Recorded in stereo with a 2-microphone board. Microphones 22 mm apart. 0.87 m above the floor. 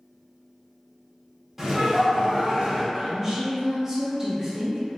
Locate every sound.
1.6 s laughter: 10° right (ahead or behind), 1.6 m; by 2.8 s 55° right (ahead or behind), 1.5 m
2.9 s a woman speaking: 20° right (ahead or behind), 0.9 m